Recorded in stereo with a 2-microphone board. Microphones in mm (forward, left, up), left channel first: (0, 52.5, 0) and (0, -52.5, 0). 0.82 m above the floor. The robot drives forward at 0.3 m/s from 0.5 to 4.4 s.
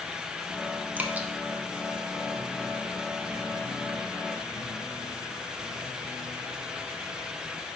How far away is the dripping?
About 0.7 m.